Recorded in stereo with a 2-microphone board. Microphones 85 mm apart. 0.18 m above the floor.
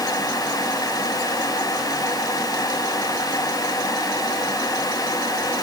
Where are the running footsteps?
I don't hear running footsteps.